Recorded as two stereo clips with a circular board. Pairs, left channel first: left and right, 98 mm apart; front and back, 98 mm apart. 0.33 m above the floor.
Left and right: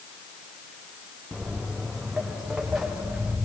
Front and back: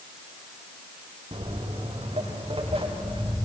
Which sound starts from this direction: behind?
Footsteps, at 1.3 s.